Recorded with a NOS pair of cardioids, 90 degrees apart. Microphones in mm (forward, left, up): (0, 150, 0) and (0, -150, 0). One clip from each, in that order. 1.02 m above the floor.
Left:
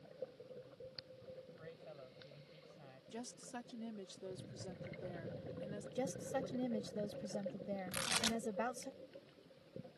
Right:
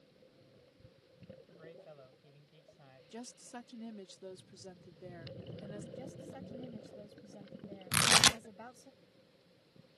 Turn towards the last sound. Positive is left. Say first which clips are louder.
# right 13 dB
turn(degrees=-60)